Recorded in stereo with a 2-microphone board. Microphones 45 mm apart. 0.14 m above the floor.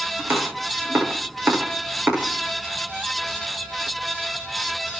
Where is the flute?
No flute in this recording.